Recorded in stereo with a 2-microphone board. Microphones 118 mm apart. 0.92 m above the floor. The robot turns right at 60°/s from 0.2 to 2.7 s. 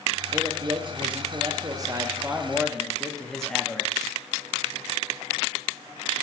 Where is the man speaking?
135° right, 0.6 m; by 4.1 s 5° left, 0.6 m.